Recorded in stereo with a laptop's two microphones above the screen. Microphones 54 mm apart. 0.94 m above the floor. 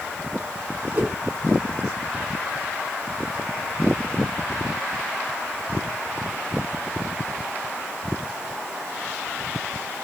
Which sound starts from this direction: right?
A whoosh, at 0.9 s.